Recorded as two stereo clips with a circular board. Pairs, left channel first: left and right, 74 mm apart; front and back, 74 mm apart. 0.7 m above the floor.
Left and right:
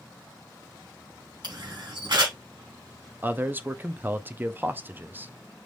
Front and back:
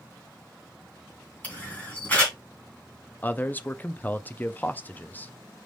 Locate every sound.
1.4 s a camera shutter: 70° right, 2.5 m
3.2 s a man speaking: 45° right, 0.5 m